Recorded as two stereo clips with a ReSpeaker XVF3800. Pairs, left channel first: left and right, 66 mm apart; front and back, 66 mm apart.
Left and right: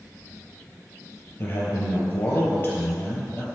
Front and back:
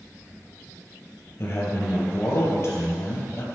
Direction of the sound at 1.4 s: 35° left.